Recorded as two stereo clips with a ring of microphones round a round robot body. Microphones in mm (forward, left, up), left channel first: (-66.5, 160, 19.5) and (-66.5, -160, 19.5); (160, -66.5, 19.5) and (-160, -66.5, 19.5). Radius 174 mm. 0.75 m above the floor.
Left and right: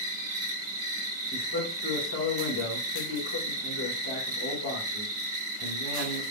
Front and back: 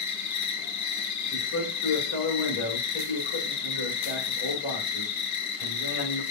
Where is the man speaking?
50° left, 2 m.